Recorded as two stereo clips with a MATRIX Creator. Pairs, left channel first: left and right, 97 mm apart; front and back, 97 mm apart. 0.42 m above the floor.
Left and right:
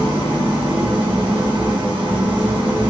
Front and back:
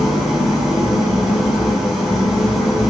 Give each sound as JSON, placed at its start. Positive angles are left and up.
{"t": 0.0, "sound": "an engine running", "azimuth_deg": -90, "distance_m": 1.6}